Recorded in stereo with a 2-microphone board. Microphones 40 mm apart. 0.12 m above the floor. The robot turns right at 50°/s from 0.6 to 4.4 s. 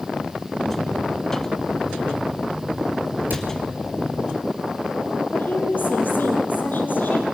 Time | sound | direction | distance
3.3 | a cupboard door | 50° right (ahead or behind) | 2.5 m
5.3 | a woman speaking | 50° left (ahead or behind) | 3.5 m